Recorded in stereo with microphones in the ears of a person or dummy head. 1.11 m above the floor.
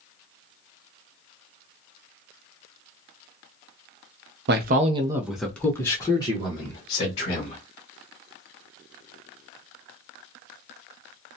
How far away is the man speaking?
About 0.5 m.